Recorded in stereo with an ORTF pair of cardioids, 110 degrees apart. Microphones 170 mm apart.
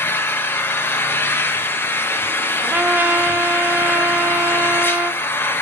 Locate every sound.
0.0 s an engine running: 10° left, 1.1 m
2.6 s a trumpet: 10° right, 0.7 m